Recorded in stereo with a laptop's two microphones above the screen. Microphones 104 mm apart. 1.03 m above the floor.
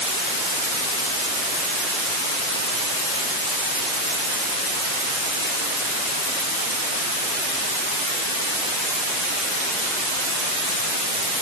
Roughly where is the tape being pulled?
No tape being pulled in this recording.